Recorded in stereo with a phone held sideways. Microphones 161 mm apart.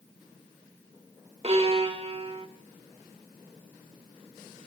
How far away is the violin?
About 2 m.